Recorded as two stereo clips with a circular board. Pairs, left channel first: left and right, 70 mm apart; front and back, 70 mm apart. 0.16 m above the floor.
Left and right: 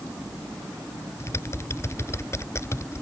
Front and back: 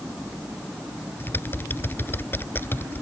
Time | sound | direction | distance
1.2 | typing on a keyboard | 50° left | ?